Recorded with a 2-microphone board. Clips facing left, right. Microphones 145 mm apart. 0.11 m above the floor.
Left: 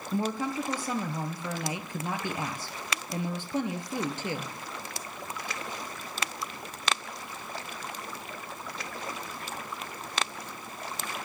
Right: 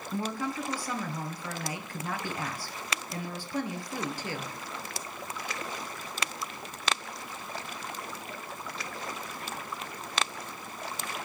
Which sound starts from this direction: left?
A woman speaking, at 0.1 s.